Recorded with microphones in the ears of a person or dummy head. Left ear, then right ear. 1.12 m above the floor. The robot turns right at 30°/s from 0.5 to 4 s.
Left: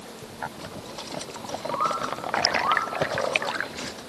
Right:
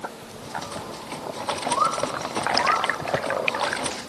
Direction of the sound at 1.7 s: 35° right (ahead or behind).